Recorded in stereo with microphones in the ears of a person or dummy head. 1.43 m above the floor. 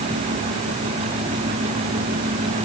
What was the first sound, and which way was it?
Only background noise.